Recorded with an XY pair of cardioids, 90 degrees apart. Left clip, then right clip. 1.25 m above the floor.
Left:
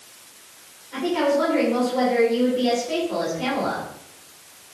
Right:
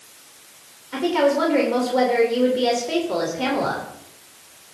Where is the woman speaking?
60° right, 3.5 m.